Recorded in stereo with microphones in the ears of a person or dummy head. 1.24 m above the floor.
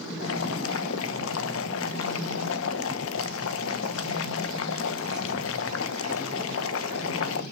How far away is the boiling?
About 1.1 m.